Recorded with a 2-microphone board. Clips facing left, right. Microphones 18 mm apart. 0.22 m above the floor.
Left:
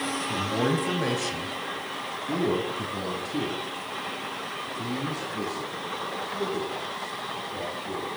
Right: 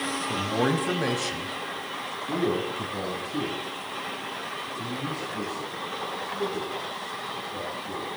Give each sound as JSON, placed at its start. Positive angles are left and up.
{"t": 0.3, "sound": "a man speaking", "side_deg": -25, "distance_m": 1.0}